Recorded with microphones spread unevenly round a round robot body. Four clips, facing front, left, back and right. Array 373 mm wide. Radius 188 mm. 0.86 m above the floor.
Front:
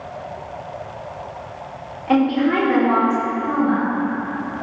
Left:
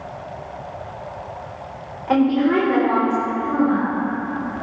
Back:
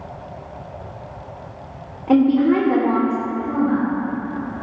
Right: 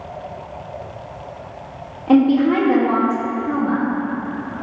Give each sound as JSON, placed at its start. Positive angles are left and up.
{"t": 2.1, "sound": "a woman speaking", "azimuth_deg": -140, "distance_m": 1.5}